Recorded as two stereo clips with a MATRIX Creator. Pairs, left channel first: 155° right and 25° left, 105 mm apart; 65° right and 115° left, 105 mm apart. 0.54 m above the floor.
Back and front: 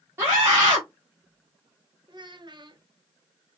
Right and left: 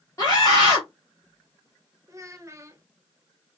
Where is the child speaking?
55° left, 0.8 m.